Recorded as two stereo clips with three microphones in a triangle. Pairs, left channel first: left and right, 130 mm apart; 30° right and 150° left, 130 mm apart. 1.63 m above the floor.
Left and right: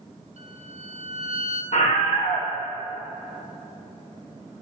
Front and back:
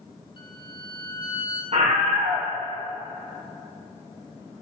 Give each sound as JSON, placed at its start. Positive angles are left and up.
{"t": 0.4, "sound": "a violin", "azimuth_deg": -75, "distance_m": 1.8}
{"t": 1.7, "sound": "a scream", "azimuth_deg": 115, "distance_m": 1.5}